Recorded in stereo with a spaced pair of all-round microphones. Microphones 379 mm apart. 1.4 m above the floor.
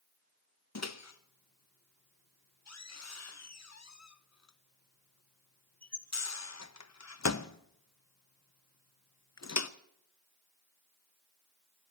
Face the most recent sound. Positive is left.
turn(degrees=45)  # may be behind; listen again after turning